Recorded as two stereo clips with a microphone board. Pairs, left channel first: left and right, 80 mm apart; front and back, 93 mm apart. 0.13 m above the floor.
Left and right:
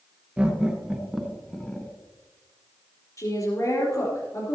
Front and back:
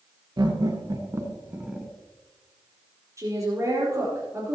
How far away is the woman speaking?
About 4 m.